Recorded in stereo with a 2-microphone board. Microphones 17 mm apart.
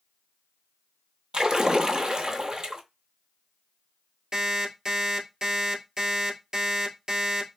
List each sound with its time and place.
1.3 s a splash: 45° right (ahead or behind), 0.6 m
4.3 s an alarm clock: 35° right (ahead or behind), 1.4 m